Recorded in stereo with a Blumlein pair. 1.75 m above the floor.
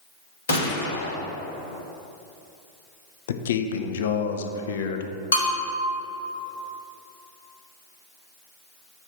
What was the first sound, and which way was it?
A gunshot, 65° left.